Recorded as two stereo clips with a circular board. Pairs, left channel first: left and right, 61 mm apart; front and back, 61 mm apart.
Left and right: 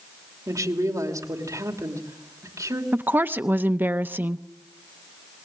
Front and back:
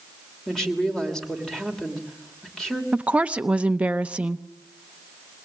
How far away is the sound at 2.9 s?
About 0.7 m.